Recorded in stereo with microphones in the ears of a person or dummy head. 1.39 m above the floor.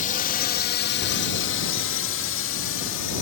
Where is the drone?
45° left (ahead or behind); by 3.2 s 65° left (ahead or behind).